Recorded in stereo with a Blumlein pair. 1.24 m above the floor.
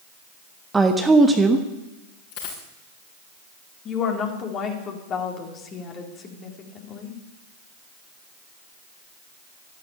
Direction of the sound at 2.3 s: 45° left.